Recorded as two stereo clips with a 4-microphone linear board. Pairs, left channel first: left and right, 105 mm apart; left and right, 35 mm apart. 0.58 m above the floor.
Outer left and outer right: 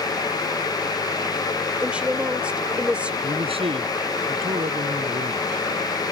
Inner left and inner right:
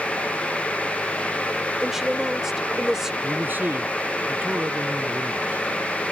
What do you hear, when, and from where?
1.8 s a woman speaking: 10° right (ahead or behind)
3.2 s a man speaking: 60° right (ahead or behind)